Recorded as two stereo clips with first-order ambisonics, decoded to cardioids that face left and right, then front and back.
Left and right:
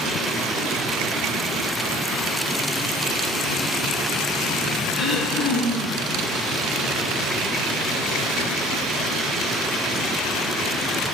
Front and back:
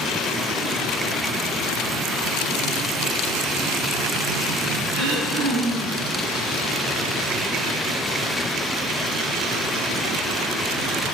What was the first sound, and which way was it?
Throat clearing, 170° right.